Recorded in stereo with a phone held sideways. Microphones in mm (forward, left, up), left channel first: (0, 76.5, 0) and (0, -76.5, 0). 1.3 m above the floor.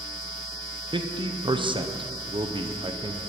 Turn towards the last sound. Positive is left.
turn(degrees=-35)  # may be behind; listen again after turning